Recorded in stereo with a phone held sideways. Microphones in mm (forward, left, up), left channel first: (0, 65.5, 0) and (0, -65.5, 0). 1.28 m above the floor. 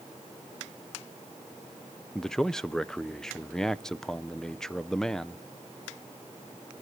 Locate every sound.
2.1 s a man speaking: 5° left (ahead or behind), 0.5 m